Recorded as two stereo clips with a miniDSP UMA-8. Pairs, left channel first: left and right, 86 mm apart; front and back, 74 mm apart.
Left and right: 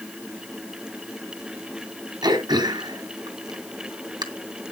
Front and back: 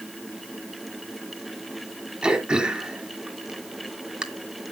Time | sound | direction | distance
2.2 | throat clearing | 105° right | 1.9 m